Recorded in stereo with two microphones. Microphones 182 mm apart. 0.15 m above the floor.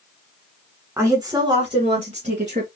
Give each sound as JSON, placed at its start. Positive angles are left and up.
{"t": 1.0, "sound": "a woman speaking", "side_deg": -15, "distance_m": 1.3}